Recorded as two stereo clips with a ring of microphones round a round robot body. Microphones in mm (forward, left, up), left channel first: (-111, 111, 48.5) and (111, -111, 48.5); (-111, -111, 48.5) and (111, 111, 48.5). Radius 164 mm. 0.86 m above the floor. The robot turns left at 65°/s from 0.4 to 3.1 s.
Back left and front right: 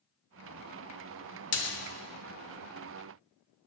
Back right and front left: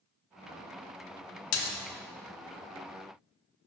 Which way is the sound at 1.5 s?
Straight behind.